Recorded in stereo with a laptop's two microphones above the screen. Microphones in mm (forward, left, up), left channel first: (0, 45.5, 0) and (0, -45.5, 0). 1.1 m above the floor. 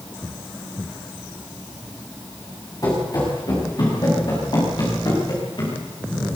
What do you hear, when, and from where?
2.8 s running footsteps: 40° left (ahead or behind), 6.5 m; by 5.8 s 55° left (ahead or behind), 9.5 m